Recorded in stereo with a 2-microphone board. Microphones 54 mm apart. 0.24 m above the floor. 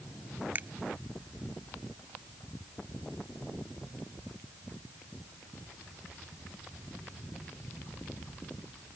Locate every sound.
0.6 s a finger snap: 35° right (ahead or behind)